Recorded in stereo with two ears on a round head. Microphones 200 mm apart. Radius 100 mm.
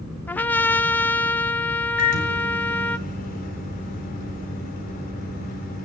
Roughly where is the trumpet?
Centre.